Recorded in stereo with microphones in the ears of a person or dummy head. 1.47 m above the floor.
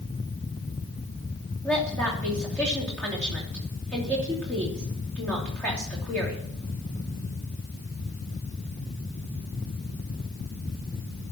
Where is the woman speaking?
10° left (ahead or behind), 2.5 m.